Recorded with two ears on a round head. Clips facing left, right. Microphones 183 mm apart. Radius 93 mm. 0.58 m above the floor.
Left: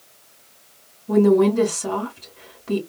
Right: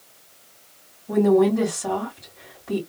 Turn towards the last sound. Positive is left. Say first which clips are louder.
# left 2 dB
turn(degrees=35)  # may be behind; listen again after turning